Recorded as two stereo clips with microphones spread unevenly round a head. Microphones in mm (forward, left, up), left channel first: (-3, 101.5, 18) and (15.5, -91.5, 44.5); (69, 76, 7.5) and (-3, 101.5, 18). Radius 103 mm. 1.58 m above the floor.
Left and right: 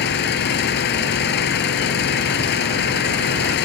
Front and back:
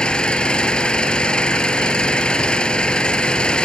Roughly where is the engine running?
Ahead left.